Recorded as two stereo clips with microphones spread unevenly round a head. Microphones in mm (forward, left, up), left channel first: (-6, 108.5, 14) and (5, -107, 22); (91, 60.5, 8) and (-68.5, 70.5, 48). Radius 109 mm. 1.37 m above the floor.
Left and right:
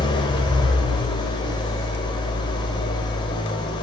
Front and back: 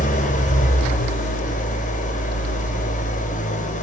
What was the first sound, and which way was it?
An engine running, 30° left.